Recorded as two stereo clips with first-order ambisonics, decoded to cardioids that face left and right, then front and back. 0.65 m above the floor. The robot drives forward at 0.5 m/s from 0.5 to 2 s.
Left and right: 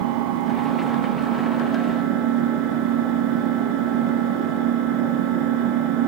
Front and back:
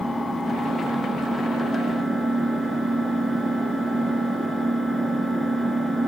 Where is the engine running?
85° right, 2.5 m; by 6.1 s 105° right, 2.5 m.